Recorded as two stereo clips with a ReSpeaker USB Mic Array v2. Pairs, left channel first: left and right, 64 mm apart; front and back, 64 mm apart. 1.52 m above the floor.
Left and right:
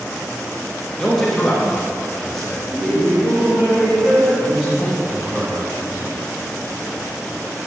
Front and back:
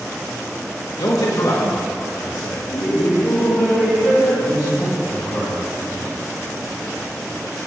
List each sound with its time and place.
1.0 s a man speaking: 5° left, 1.3 m
2.7 s laughter: 25° right, 3 m
4.4 s a man speaking: 15° right, 2.5 m